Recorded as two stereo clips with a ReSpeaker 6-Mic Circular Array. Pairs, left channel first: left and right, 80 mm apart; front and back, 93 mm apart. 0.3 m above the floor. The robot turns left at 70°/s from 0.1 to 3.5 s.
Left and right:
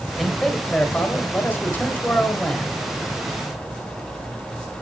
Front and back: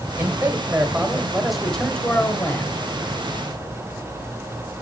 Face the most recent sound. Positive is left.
turn(degrees=-50)